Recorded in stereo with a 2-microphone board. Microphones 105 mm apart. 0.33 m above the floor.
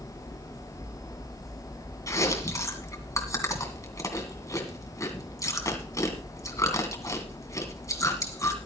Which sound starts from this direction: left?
Chewing, at 2.1 s.